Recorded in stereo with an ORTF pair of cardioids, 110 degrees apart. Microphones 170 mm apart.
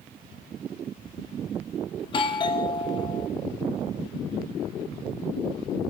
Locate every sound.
2.0 s a doorbell: 30° left, 1.3 m